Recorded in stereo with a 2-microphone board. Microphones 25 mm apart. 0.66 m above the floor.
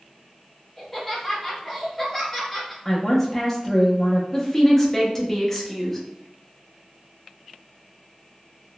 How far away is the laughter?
About 1.5 m.